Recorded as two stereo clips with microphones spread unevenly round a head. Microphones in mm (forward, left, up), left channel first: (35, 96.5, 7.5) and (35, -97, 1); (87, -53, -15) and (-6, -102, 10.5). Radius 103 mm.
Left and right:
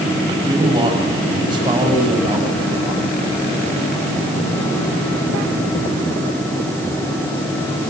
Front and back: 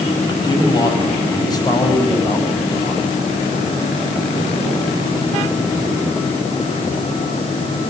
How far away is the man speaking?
About 9 m.